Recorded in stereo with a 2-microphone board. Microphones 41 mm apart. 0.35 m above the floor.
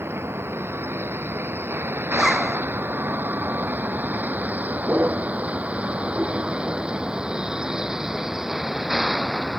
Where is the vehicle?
75° right (ahead or behind); by 9.6 s 5° right (ahead or behind).